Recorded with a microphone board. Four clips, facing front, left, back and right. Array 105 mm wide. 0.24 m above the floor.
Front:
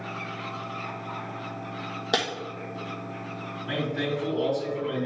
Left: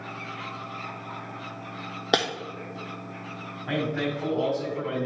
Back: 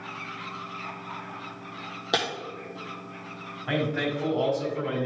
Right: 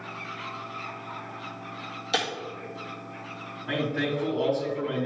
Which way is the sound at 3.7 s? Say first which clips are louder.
Even, back 2 dB; 150° left.